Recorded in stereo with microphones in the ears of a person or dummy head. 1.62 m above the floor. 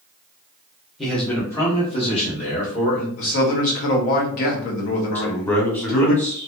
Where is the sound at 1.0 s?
Centre (ahead or behind), 1.0 m; by 3.1 s 50° left (ahead or behind), 1.6 m.